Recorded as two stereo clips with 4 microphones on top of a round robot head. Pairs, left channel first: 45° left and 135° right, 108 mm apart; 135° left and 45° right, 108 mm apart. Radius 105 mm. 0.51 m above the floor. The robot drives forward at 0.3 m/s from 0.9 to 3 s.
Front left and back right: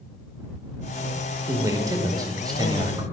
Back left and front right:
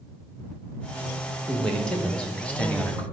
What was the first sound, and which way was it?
A man speaking, 140° right.